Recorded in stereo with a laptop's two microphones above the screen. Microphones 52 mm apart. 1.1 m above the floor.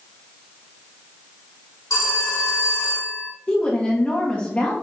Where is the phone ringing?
70° left (ahead or behind), 2.5 m.